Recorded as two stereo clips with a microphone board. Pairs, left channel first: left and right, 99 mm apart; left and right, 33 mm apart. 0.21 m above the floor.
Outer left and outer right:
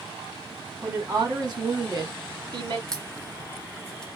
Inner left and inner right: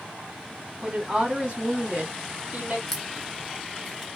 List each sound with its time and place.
0.8 s a woman speaking: 20° right (ahead or behind), 1.4 m; by 2.8 s 45° right (ahead or behind), 1.6 m
2.9 s a crack: 5° left (ahead or behind), 0.6 m